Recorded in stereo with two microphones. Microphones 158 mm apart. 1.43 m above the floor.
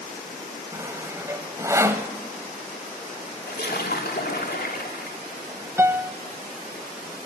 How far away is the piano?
About 0.9 m.